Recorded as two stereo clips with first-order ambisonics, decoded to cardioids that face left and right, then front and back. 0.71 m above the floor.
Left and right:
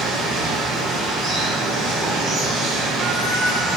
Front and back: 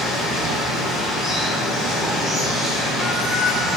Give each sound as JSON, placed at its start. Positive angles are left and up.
{"t": 0.0, "sound": "running water", "azimuth_deg": -60, "distance_m": 1.8}